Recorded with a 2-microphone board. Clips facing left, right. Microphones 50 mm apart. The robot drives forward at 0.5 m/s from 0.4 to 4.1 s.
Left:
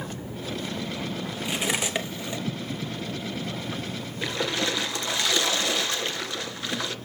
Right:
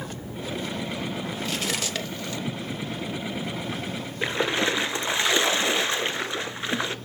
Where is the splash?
25° right (ahead or behind), 0.7 m.